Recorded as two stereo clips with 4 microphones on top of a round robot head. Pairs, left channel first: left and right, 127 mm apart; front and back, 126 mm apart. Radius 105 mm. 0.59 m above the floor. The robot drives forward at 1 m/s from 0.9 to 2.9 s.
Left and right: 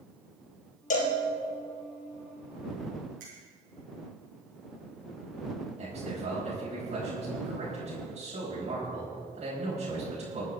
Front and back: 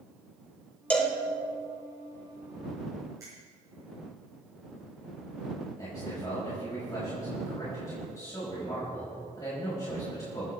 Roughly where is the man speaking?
Ahead right.